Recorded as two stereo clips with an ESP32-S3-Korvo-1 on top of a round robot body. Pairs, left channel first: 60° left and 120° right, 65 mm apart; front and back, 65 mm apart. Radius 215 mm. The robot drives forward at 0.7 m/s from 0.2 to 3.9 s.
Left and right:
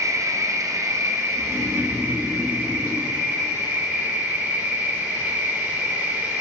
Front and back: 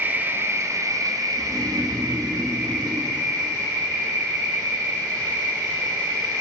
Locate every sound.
0.0 s an insect: 130° right, 0.8 m; by 6.4 s 170° right, 3 m
1.4 s snoring: 100° left, 0.7 m; by 3.1 s 155° left, 1.5 m